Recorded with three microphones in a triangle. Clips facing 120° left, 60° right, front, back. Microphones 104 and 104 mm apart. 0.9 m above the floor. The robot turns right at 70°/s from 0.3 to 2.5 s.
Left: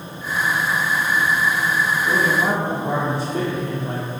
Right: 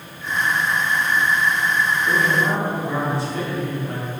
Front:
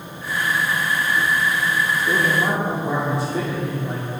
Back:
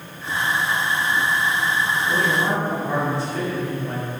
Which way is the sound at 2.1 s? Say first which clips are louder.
Left 2 dB, front 1 dB; 30° left.